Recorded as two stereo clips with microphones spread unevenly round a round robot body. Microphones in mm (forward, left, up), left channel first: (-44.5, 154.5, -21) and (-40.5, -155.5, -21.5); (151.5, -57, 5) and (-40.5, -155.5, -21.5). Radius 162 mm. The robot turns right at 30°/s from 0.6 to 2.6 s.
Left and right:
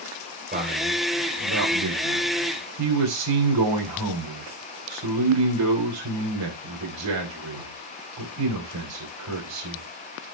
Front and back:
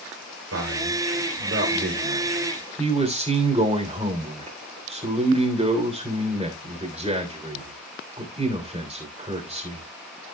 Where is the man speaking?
150° right, 3 m; by 9.8 s 90° right, 3 m.